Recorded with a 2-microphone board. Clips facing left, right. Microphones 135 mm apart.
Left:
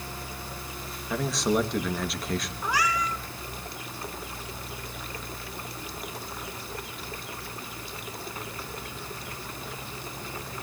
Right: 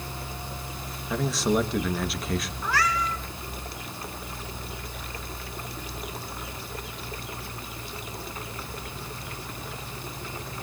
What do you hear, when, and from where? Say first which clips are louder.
1.1 s a man speaking: right 1 dB; centre (ahead or behind), 1.3 m
2.6 s a cat meowing: even; 15° left (ahead or behind), 2 m